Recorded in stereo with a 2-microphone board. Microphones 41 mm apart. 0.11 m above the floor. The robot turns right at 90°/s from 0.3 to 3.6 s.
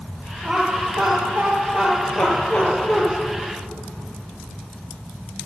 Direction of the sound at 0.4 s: 15° right (ahead or behind).